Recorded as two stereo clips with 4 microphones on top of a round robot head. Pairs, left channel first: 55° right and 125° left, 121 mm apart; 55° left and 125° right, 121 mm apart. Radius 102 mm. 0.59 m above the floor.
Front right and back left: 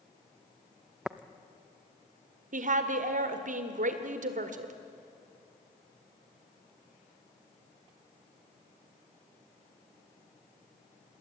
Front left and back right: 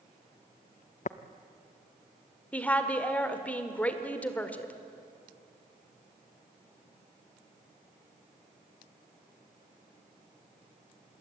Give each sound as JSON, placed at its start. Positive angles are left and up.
{"t": 1.1, "sound": "tapping", "azimuth_deg": 40, "distance_m": 0.7}
{"t": 2.5, "sound": "a woman speaking", "azimuth_deg": 135, "distance_m": 1.9}